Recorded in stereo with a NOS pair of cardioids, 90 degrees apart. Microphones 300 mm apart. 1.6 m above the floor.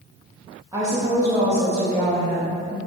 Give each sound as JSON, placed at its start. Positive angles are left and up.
{"t": 0.7, "sound": "a woman speaking", "azimuth_deg": -10, "distance_m": 0.9}